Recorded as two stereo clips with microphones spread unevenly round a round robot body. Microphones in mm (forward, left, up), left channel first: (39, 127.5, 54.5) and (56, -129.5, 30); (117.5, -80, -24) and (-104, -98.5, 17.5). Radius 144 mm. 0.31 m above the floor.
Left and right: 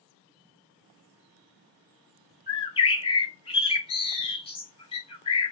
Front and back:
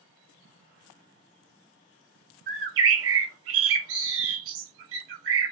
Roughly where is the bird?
Behind.